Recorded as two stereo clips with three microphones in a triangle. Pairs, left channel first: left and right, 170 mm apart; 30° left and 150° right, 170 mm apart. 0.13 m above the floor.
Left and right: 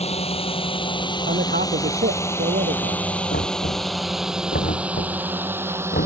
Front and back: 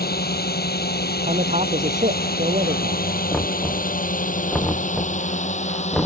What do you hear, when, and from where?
0.0 s a drone: 40° left; by 6.1 s 15° right
1.3 s a man speaking: 105° right
3.3 s knocking: 115° left